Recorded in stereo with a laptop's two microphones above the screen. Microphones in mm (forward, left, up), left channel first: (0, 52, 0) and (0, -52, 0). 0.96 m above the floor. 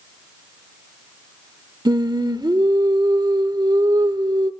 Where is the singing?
40° right (ahead or behind), 0.9 m.